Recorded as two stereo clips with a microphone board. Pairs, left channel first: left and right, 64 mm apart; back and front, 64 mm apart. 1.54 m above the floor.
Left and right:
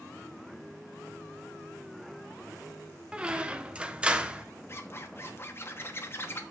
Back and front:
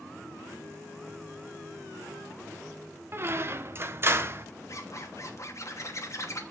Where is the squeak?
25° right, 0.6 m.